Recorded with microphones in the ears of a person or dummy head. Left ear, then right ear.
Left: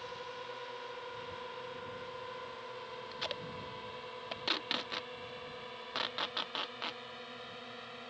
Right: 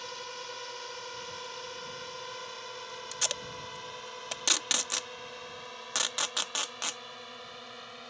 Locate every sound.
0.0 s a drone: 70° right (ahead or behind); by 8.1 s 30° right (ahead or behind)
3.1 s tape being pulled: 55° right (ahead or behind)